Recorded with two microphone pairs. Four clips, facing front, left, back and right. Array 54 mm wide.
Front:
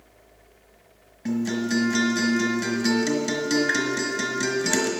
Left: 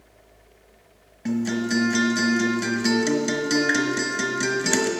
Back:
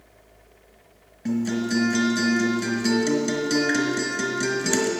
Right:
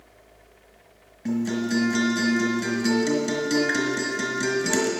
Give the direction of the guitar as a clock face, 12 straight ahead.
10 o'clock.